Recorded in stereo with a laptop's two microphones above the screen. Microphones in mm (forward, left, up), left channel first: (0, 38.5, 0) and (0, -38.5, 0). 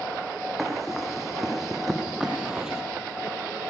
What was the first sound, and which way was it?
Running footsteps, centre (ahead or behind).